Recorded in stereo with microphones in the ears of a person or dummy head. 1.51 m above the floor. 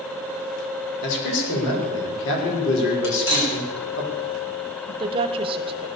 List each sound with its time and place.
1.0 s a man speaking: 65° left (ahead or behind), 5.5 m
3.0 s cutlery clinking: 70° left (ahead or behind), 6 m
4.9 s a woman speaking: 35° right (ahead or behind), 1.1 m